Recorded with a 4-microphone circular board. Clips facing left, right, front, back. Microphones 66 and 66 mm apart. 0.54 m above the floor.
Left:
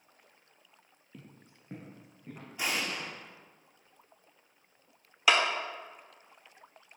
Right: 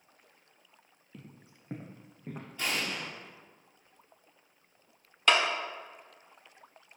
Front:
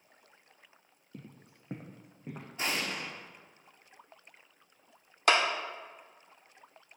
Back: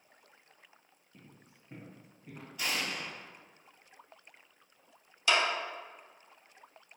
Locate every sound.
1.1 s footsteps: 5° left, 1.0 m; by 2.5 s 40° right, 2 m
2.6 s an explosion: 25° left, 1.2 m
5.3 s a clap: 10° left, 0.9 m